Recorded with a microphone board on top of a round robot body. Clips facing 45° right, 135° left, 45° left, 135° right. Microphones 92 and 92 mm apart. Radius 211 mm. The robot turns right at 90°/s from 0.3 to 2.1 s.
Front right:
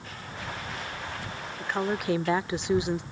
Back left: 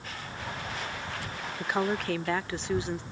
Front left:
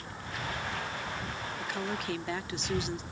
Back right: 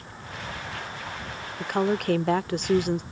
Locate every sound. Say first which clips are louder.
1.6 s a woman speaking: even, back right 12 dB; 160° right; by 3.0 s 115° right